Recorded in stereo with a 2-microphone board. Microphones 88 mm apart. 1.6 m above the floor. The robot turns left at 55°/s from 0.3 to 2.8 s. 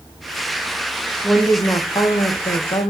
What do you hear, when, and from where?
1.2 s a woman speaking: 165° left, 2 m; by 2.9 s 80° left, 2 m